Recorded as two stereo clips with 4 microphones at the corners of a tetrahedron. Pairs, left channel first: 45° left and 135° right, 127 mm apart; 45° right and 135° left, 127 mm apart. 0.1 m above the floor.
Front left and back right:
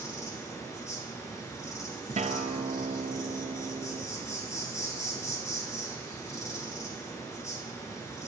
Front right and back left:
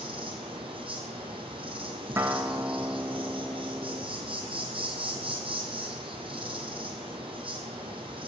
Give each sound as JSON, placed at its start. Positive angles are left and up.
{"t": 0.0, "sound": "an insect", "azimuth_deg": 105, "distance_m": 1.8}
{"t": 2.2, "sound": "a guitar", "azimuth_deg": -155, "distance_m": 0.6}